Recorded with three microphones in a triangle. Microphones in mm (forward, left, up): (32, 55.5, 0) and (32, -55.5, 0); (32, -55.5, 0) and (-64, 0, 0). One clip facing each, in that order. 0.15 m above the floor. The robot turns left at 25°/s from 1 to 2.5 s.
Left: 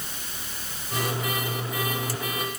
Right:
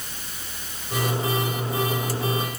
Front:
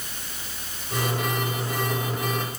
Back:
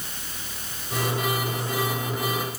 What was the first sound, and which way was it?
Only background noise.